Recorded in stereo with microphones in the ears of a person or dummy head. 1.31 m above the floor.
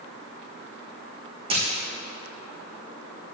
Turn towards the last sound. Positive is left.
turn(degrees=-35)  # may be behind; listen again after turning